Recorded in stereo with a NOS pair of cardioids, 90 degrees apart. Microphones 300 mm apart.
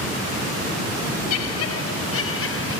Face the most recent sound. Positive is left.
turn(degrees=45)